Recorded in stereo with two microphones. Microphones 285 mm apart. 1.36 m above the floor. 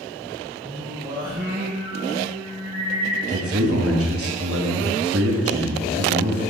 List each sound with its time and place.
0.6 s singing: 15° right (ahead or behind), 3.5 m
3.3 s a man speaking: 50° right (ahead or behind), 1.8 m